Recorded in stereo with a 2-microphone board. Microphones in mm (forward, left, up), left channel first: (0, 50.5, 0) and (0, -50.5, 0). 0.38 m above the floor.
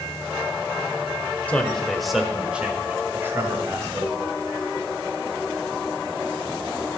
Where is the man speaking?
15° left (ahead or behind), 1.3 m; by 4.3 s 30° right (ahead or behind), 2.5 m.